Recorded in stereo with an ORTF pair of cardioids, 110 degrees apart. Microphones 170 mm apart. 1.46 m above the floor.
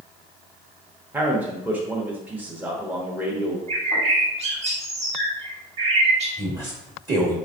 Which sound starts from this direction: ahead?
A man speaking, at 1.1 s.